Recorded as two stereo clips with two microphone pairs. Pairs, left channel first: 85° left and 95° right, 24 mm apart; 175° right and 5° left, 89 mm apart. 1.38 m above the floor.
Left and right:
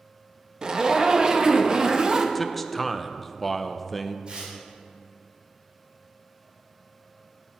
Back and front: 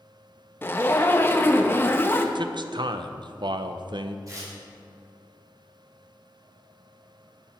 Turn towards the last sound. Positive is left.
turn(degrees=-40)